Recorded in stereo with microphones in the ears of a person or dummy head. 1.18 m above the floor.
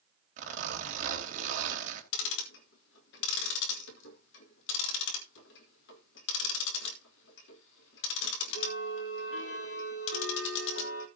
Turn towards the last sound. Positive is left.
turn(degrees=70)  # may be behind; listen again after turning